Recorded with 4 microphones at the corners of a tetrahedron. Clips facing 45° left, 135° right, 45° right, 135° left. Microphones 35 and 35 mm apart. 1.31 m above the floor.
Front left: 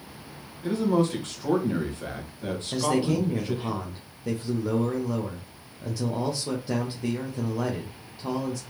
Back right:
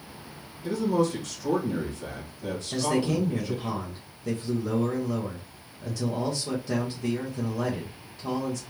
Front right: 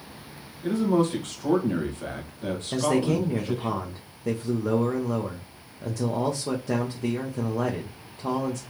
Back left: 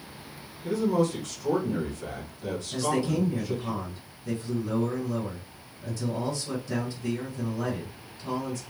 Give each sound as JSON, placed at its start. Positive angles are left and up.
{"t": 0.6, "sound": "a man speaking", "azimuth_deg": 0, "distance_m": 1.5}
{"t": 2.7, "sound": "a man speaking", "azimuth_deg": -30, "distance_m": 0.7}